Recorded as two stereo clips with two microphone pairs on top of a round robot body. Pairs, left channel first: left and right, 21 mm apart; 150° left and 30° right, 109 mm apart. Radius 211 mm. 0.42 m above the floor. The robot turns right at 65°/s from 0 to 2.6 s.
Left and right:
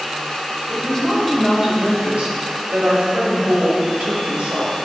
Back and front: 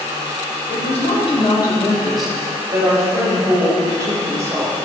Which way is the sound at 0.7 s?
145° left.